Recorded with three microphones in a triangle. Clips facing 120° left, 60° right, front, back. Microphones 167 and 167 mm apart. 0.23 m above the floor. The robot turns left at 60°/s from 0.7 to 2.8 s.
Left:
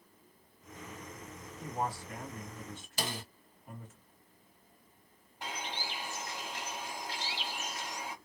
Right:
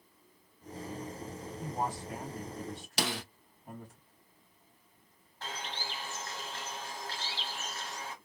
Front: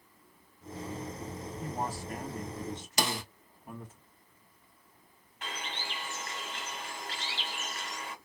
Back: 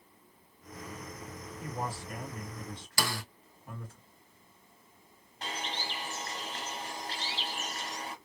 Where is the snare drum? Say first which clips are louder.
Right 4 dB, front 2 dB; 65° right, 0.5 m.